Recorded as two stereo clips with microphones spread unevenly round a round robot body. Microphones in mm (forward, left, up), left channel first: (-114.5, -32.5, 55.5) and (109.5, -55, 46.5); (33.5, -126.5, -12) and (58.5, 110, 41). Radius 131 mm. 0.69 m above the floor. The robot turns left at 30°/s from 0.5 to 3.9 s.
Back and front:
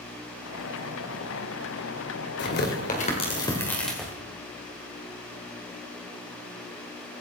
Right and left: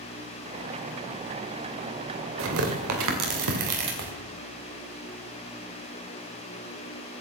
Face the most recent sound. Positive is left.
turn(degrees=85)